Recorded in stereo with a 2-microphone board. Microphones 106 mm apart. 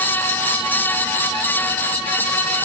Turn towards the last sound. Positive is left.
No sound to turn to.